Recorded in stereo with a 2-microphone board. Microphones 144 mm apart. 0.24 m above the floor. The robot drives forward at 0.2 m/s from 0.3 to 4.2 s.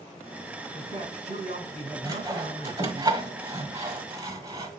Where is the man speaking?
50° right (ahead or behind), 2.5 m; by 3.0 s 45° right (ahead or behind), 2.5 m.